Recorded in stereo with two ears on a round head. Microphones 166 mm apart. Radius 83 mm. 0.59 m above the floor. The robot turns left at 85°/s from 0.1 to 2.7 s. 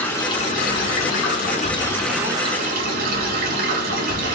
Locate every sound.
0.0 s running water: 170° left, 1.2 m; by 4.3 s 50° right, 1.2 m